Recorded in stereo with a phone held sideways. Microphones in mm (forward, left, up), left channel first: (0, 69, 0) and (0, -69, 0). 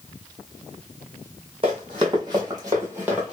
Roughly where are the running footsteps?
Right.